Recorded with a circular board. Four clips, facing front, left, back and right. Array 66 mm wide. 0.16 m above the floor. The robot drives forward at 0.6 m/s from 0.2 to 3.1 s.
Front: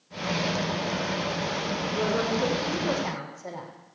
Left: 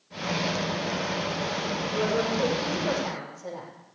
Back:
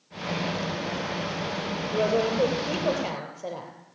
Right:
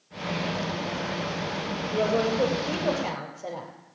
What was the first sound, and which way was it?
A woman speaking, 145° right.